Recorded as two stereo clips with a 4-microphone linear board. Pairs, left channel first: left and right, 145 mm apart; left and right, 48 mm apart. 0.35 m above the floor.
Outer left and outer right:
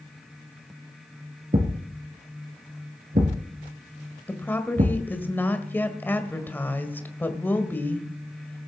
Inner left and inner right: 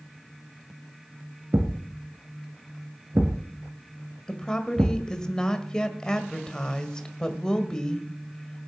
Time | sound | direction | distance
1.5 | a thud | 70° right (ahead or behind) | 2 m
4.3 | a woman speaking | 15° left (ahead or behind) | 1.7 m